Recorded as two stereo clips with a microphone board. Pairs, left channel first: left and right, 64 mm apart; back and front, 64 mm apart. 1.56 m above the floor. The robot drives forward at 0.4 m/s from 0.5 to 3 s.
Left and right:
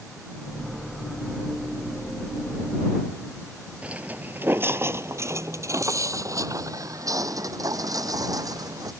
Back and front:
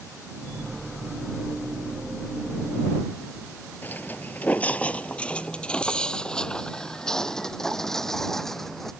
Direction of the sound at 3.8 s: 150° right.